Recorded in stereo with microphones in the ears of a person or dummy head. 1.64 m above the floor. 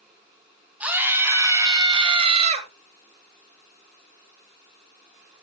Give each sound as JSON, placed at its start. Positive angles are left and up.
{"t": 0.8, "sound": "a scream", "side_deg": -10, "distance_m": 4.5}